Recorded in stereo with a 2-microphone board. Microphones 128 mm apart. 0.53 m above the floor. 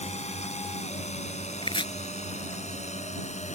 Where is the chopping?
45° left (ahead or behind).